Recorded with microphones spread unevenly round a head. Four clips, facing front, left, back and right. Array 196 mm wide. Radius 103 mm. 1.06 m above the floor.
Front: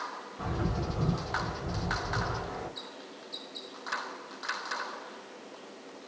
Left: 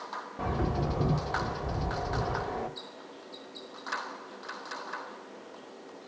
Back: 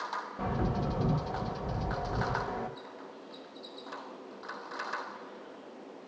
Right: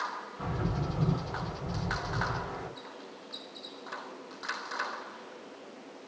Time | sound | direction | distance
0.4 | a bird | 110° left | 3.5 m